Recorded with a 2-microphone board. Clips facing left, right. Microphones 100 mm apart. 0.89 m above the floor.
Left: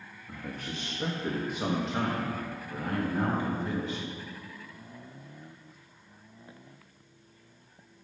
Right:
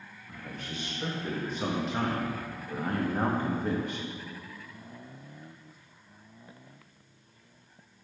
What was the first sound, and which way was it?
A man speaking, 40° left (ahead or behind).